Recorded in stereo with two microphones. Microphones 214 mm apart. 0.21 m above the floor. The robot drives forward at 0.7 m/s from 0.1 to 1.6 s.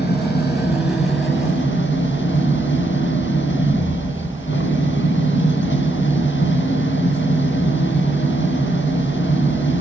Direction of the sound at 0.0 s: 50° left (ahead or behind).